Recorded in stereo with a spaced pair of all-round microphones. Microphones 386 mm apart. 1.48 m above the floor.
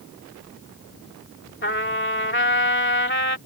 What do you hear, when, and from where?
1.6 s a trumpet: 30° left (ahead or behind)